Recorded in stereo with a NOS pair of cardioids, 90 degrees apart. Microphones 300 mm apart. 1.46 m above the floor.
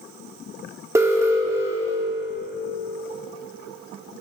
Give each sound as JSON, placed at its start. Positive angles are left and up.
{"t": 0.9, "sound": "an alarm", "azimuth_deg": -10, "distance_m": 2.5}